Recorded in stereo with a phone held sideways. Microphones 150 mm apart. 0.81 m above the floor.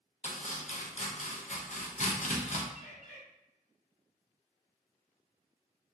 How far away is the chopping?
About 0.6 m.